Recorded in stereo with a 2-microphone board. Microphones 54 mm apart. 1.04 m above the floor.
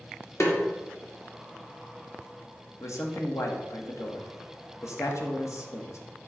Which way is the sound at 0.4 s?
60° left (ahead or behind).